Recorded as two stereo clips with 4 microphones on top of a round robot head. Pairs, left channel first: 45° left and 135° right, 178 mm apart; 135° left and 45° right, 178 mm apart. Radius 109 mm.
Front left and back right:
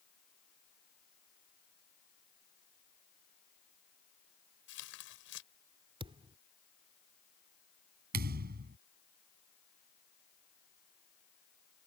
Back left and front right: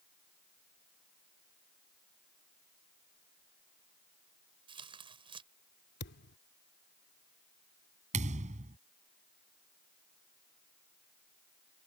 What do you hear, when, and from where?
4.7 s tearing paper: 20° left
6.0 s a thud: 160° left
8.1 s a thud: 95° right